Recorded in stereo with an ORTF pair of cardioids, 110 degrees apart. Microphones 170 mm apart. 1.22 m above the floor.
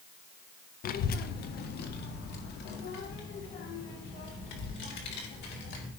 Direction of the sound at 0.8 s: 60° left.